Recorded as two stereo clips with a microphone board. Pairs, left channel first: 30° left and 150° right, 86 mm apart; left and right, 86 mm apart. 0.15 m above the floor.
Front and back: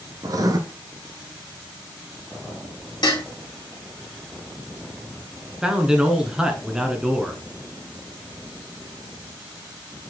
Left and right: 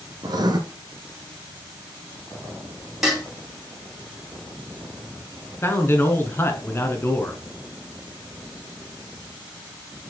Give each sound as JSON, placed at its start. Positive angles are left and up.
{"t": 0.2, "sound": "writing", "azimuth_deg": -115, "distance_m": 1.0}
{"t": 3.0, "sound": "dishes clattering", "azimuth_deg": -5, "distance_m": 2.0}
{"t": 5.6, "sound": "a man speaking", "azimuth_deg": 130, "distance_m": 1.3}